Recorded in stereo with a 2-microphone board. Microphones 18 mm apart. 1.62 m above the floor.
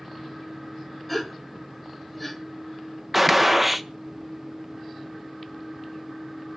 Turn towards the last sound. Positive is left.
turn(degrees=-5)  # may be behind; listen again after turning